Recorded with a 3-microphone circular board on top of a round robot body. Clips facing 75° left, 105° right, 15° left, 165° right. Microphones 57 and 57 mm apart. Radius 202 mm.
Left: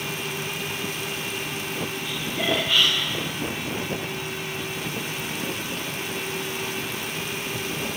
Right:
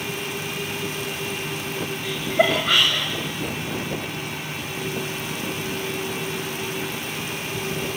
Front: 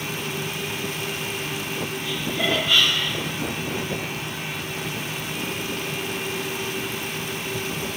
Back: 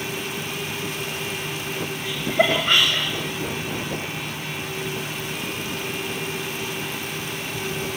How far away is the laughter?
About 3 m.